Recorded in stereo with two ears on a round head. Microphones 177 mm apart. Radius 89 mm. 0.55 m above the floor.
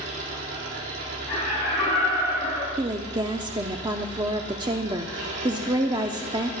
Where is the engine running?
70° right (ahead or behind), 8.5 m.